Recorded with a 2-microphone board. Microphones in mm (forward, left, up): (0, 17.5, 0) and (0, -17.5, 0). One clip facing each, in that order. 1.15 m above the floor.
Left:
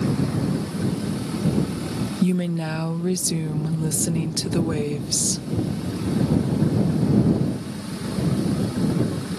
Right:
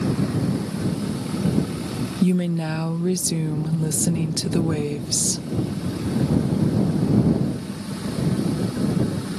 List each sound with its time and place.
2.2 s a woman speaking: centre (ahead or behind)